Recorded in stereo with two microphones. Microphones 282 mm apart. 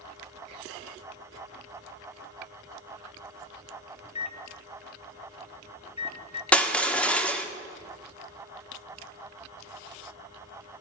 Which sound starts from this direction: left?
A microwave, at 4.0 s.